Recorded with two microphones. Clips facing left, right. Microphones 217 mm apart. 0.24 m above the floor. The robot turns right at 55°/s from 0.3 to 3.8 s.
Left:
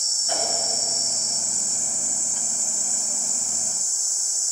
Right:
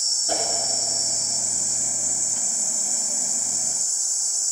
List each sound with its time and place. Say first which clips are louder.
0.3 s a whoosh: right 2 dB; 40° right (ahead or behind), 3 m; by 0.5 s 35° right (ahead or behind), 3 m